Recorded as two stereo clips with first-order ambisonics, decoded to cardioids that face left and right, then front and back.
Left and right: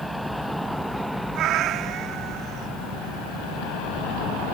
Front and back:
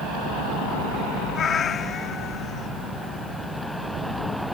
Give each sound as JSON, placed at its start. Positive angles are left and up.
{"t": 1.4, "sound": "a cat meowing", "azimuth_deg": -60}